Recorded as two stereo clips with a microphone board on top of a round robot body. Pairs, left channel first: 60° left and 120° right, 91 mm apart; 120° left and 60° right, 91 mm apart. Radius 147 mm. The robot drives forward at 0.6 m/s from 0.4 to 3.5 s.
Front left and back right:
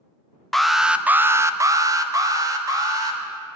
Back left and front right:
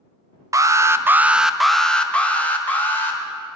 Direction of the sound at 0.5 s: 25° right.